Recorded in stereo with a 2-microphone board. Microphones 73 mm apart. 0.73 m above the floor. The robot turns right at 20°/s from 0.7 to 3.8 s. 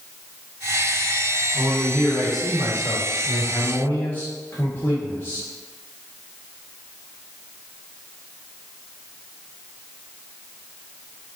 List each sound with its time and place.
1.5 s a man speaking: 15° right, 2 m; by 5.5 s 30° left, 2 m